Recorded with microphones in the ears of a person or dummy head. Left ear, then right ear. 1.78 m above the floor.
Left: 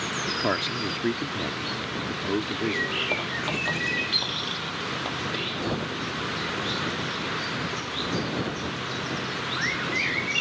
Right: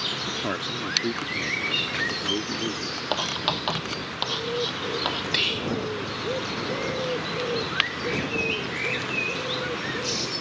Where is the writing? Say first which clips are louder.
Right 2 dB; 55° right (ahead or behind).